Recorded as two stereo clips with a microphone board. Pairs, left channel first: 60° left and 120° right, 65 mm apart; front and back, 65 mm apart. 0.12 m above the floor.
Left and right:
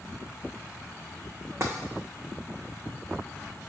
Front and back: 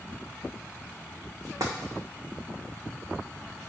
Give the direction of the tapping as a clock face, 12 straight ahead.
6 o'clock.